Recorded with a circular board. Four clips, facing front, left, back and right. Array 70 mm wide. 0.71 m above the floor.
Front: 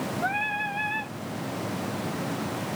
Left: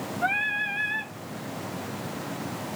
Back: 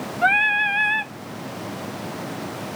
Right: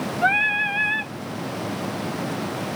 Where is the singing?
155° right, 0.7 m.